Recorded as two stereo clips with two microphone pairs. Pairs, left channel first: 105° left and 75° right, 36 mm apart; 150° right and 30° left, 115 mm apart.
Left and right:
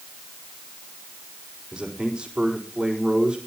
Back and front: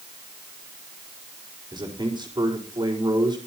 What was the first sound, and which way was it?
A man speaking, 15° right.